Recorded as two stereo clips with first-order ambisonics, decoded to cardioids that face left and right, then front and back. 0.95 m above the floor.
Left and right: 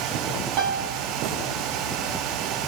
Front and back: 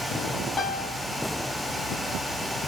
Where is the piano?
85° right, 0.8 m.